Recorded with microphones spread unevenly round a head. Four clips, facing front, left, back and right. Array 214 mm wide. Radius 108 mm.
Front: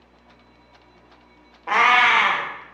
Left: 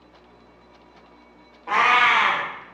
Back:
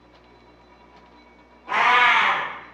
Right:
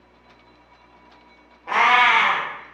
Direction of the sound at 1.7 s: 20° right.